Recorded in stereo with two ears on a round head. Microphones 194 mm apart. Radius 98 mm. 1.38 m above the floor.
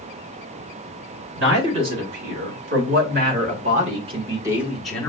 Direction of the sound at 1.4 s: 60° right (ahead or behind).